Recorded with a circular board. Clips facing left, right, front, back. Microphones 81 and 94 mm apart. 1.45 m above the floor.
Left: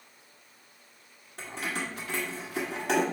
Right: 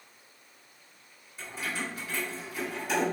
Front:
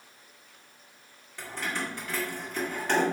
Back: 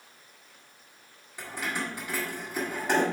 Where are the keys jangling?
105° left, 1.4 m.